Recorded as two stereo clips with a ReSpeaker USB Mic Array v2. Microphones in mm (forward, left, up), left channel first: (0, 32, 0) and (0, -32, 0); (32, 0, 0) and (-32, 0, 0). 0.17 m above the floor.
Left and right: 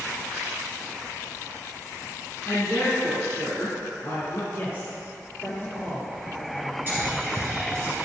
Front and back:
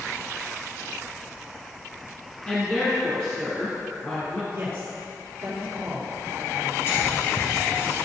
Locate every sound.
2.5 s a woman speaking: 55° left, 1.6 m
4.5 s a man speaking: 130° left, 2.5 m
6.9 s whispering: 40° right, 2 m